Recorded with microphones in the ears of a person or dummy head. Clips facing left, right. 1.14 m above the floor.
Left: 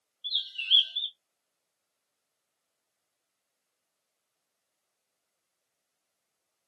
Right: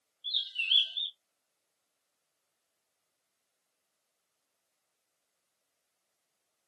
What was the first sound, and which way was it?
A bird, 5° left (ahead or behind).